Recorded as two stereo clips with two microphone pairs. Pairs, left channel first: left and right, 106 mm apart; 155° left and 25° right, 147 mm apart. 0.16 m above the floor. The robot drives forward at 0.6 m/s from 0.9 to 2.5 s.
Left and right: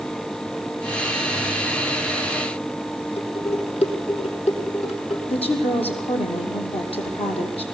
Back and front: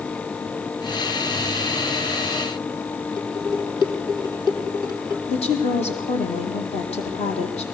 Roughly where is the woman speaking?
Left.